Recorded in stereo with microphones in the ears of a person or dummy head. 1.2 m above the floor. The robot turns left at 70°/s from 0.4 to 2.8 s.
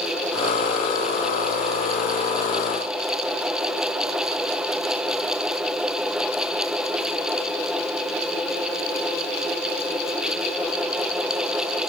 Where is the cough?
No cough in this recording.